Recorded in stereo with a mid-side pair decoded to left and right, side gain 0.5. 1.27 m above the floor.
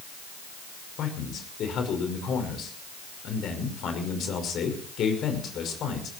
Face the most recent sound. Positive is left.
turn(degrees=60)